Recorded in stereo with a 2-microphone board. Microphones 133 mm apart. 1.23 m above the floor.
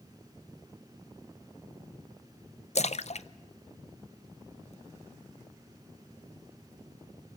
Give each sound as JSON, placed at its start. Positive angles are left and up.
{"t": 2.8, "sound": "a splash", "side_deg": 55, "distance_m": 0.6}